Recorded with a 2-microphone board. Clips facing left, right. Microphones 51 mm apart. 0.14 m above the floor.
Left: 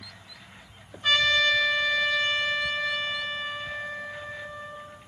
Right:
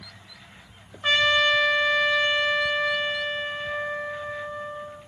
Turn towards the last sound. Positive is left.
turn(degrees=-25)  # may be behind; listen again after turning